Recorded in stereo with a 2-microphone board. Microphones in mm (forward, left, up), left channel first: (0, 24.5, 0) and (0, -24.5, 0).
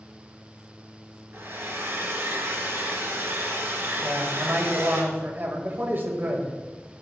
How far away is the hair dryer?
About 2 m.